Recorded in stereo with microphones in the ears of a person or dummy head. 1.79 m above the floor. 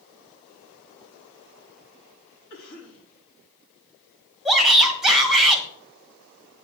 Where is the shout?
5° left (ahead or behind), 1.5 m.